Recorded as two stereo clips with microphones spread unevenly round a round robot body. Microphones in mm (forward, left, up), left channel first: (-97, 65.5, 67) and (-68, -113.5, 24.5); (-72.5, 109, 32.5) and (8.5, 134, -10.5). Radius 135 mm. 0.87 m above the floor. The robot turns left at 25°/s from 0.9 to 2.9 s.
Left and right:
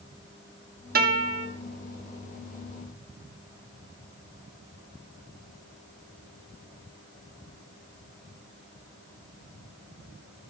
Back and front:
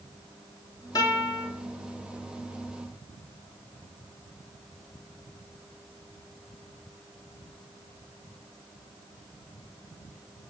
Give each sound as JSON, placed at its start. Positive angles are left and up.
{"t": 0.9, "sound": "a guitar", "azimuth_deg": -85, "distance_m": 2.0}